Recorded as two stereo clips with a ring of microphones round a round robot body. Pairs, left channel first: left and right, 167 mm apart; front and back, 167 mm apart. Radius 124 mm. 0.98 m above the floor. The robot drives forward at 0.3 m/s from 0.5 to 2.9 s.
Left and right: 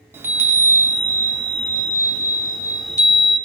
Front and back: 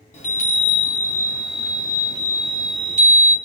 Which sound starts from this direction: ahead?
A chime, at 0.1 s.